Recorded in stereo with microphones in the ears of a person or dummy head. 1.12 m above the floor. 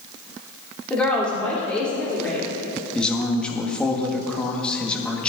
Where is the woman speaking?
5° left (ahead or behind), 3 m.